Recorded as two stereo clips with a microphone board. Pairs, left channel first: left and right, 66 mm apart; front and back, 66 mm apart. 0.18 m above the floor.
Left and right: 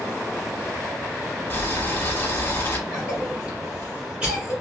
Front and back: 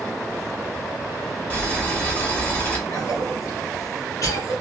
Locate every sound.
1.5 s boiling: 50° left, 0.9 m
2.9 s a cough: 15° right, 1.8 m